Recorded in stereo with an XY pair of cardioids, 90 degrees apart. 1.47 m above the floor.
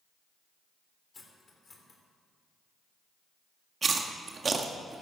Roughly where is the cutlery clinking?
Ahead left.